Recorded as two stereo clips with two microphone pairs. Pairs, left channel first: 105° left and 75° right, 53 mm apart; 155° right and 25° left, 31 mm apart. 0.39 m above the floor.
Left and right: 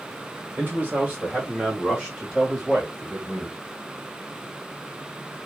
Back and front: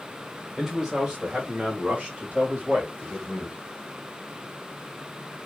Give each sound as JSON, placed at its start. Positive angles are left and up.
{"t": 0.6, "sound": "a man speaking", "azimuth_deg": -45, "distance_m": 1.9}